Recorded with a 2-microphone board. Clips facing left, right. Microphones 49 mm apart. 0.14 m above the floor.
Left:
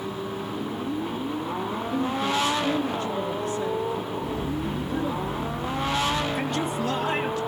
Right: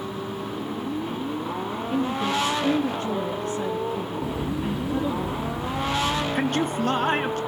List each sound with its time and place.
1.9 s a woman speaking: 40° right (ahead or behind), 3 m
4.2 s a bird: 75° right (ahead or behind), 3 m
6.3 s a man speaking: 45° right (ahead or behind), 2 m